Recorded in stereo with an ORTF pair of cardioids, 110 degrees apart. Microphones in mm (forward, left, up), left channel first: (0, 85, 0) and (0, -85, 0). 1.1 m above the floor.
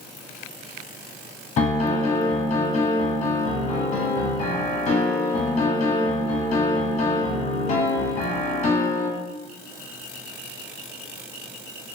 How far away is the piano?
About 0.9 m.